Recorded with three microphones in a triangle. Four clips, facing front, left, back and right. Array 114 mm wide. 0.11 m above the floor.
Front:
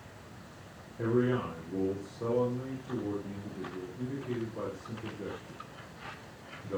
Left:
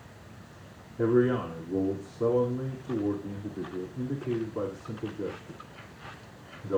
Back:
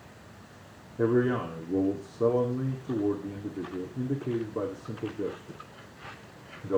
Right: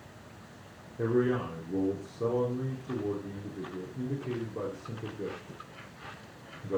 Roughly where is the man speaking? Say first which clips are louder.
Left 4 dB, back 4 dB; behind.